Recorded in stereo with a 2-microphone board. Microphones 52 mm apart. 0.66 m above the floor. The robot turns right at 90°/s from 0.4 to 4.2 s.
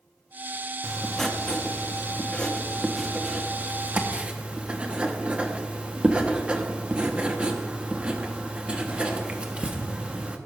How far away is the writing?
About 1.1 m.